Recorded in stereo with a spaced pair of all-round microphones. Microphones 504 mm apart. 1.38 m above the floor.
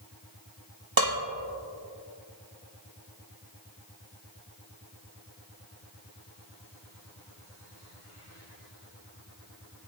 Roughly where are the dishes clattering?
Right.